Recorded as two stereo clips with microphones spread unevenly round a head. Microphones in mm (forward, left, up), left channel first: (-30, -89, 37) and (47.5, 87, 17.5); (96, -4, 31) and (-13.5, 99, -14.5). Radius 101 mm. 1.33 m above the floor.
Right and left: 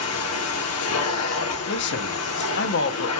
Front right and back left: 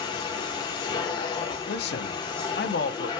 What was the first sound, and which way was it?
A machine running, 115° right.